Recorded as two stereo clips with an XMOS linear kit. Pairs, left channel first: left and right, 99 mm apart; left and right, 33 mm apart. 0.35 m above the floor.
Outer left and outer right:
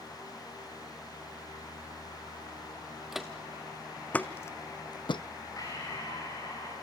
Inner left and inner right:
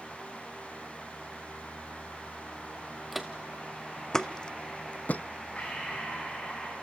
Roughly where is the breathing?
Left.